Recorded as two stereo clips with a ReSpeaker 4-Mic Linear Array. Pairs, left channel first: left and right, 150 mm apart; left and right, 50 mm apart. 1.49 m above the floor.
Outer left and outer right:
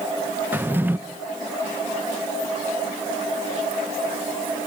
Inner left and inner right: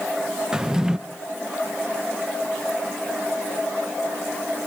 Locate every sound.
0.5 s a drawer: 15° right (ahead or behind), 0.6 m